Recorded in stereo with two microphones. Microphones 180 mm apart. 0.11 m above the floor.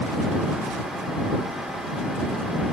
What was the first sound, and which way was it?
Only background noise.